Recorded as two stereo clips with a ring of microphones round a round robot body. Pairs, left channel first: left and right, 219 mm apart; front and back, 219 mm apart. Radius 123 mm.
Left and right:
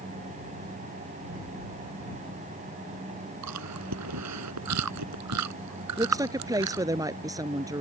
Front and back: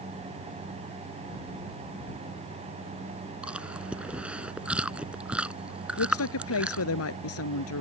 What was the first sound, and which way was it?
Chewing, 95° right.